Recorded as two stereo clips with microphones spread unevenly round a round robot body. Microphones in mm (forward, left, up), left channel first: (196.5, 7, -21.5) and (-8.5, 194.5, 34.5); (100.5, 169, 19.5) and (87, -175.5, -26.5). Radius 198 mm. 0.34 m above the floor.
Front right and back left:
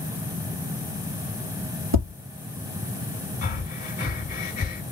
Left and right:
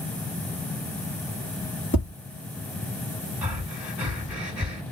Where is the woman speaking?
I don't hear a woman speaking.